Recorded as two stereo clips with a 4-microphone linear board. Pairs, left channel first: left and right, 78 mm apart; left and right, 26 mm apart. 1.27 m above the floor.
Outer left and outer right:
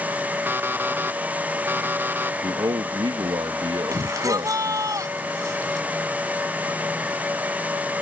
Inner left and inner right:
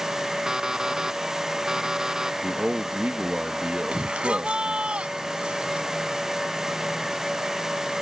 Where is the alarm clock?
25° right (ahead or behind).